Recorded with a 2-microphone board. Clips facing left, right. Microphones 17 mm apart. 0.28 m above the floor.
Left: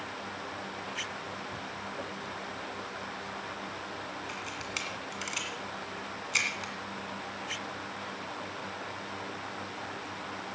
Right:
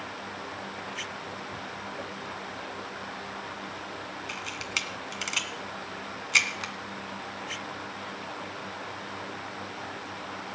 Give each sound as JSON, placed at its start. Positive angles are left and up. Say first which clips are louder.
{"t": 4.3, "sound": "a camera shutter", "louder": "right 7 dB", "side_deg": -20, "distance_m": 2.0}